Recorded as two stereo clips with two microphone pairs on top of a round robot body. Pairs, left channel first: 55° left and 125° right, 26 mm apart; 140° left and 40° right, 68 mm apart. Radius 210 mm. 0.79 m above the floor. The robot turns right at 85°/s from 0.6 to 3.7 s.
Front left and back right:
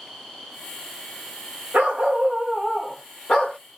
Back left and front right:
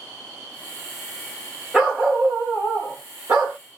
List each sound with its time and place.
1.7 s a dog barking: 125° right, 0.9 m; by 3.6 s 35° left, 0.9 m